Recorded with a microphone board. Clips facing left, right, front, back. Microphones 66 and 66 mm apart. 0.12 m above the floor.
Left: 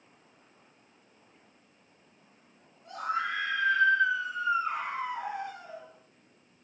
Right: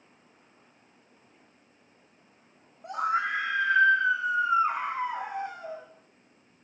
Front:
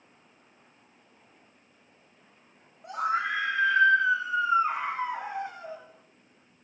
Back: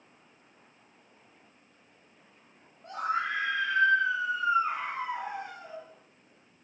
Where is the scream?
75° right, 7 m; by 5.8 s 65° right, 9 m.